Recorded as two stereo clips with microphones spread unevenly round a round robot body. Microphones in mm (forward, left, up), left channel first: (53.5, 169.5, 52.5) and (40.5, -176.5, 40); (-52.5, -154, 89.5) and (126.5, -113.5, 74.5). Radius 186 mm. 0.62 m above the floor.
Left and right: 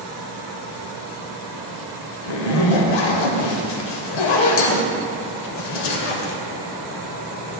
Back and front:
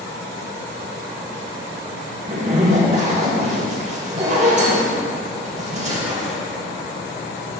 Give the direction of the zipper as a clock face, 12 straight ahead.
9 o'clock.